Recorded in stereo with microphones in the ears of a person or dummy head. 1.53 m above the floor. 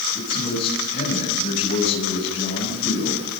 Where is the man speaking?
40° left (ahead or behind), 9 m; by 3.4 s 50° left (ahead or behind), 8.5 m.